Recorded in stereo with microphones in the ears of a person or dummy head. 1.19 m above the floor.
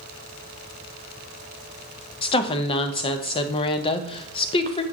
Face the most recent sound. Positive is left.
turn(degrees=30)  # may be behind; listen again after turning